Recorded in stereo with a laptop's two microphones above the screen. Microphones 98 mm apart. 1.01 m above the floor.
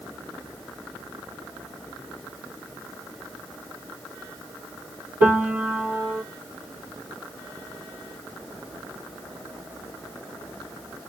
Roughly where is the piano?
Centre.